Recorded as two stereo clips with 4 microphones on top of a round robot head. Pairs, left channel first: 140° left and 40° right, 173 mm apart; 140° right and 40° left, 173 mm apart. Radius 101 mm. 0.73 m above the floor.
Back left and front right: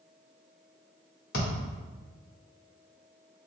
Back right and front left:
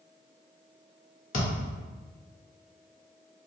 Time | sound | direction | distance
1.3 | a thud | 175° left | 1.1 m